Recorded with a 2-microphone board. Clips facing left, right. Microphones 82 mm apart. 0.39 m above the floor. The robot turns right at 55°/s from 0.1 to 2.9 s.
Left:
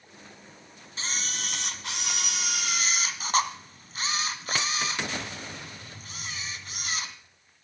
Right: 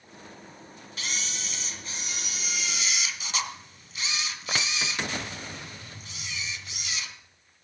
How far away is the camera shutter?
About 1.6 m.